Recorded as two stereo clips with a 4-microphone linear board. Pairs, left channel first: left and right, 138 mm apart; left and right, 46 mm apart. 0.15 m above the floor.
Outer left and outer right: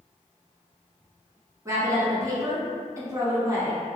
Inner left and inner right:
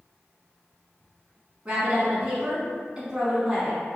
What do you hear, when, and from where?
1.6 s a woman speaking: 25° right (ahead or behind), 1.1 m